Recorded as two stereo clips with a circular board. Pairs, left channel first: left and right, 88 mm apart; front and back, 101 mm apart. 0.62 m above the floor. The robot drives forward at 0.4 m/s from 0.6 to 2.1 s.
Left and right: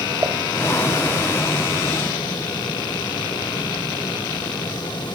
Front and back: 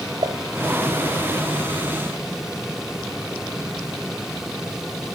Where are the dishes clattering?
150° right, 1.6 m.